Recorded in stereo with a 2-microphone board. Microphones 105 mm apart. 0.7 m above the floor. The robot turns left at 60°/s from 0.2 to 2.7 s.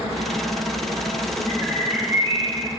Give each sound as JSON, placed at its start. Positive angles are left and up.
{"t": 1.5, "sound": "a bird", "azimuth_deg": 20, "distance_m": 1.7}